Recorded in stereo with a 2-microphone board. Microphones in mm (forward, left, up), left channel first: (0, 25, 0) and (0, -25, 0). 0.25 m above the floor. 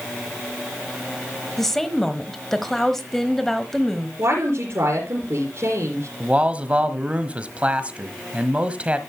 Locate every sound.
1.6 s a woman speaking: 10° left (ahead or behind), 1.2 m
4.2 s a woman speaking: 55° right (ahead or behind), 4 m
6.2 s a man speaking: 25° right (ahead or behind), 1.2 m